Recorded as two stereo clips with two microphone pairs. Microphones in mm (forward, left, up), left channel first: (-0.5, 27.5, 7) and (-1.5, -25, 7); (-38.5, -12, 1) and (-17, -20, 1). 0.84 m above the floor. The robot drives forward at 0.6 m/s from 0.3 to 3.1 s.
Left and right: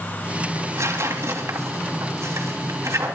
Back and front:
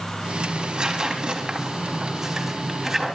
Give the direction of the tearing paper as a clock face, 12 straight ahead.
2 o'clock.